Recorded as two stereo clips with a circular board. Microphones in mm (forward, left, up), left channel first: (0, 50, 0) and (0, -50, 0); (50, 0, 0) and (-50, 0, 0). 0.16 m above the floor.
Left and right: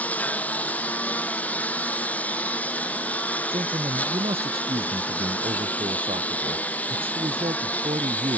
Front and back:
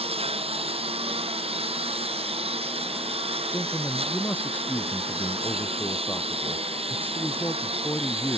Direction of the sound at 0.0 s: 165° left.